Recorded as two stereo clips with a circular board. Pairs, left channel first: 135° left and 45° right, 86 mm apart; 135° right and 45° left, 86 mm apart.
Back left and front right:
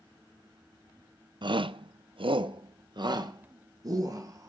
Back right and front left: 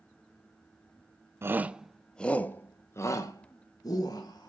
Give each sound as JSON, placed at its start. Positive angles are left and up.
{"t": 1.4, "sound": "a shout", "azimuth_deg": -15, "distance_m": 0.6}